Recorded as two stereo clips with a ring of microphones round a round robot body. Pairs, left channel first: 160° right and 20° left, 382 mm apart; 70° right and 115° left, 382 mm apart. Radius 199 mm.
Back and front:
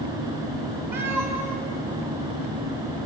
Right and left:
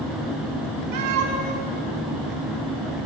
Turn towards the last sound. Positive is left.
turn(degrees=105)